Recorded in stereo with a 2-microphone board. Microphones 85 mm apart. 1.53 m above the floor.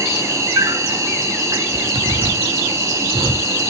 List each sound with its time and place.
0.0 s an insect: 35° right (ahead or behind), 2.5 m
1.7 s a zipper: 80° right, 1.8 m